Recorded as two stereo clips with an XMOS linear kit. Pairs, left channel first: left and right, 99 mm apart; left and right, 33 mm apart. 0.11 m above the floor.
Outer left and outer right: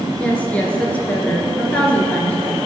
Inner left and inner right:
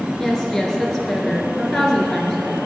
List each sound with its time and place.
0.2 s a woman speaking: 15° left (ahead or behind), 1.5 m